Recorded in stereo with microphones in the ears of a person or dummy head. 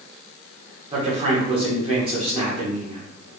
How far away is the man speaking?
About 1.1 m.